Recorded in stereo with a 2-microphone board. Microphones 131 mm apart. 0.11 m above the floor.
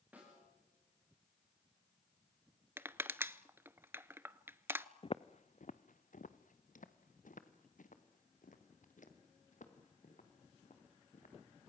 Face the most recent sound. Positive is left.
turn(degrees=70)  # may be behind; listen again after turning